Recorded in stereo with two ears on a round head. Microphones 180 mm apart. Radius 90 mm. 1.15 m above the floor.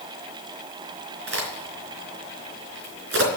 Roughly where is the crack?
Right.